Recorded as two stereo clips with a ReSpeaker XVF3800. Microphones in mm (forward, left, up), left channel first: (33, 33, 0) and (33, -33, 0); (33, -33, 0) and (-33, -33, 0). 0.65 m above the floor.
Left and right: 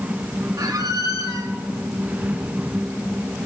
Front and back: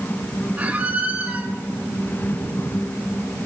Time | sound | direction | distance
0.6 | a squeak | 115° right | 1.2 m